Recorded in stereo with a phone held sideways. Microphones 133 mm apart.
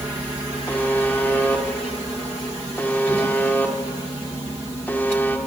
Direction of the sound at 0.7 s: 15° left (ahead or behind).